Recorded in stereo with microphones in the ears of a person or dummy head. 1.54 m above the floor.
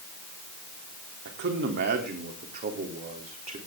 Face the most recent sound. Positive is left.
turn(degrees=-35)  # may be behind; listen again after turning